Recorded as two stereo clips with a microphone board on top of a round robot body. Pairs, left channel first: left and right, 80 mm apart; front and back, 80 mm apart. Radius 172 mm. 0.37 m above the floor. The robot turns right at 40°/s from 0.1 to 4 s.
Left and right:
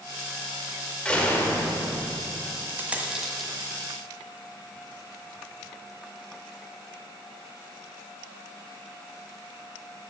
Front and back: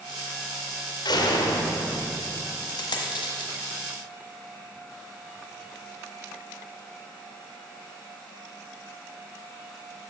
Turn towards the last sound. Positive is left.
turn(degrees=25)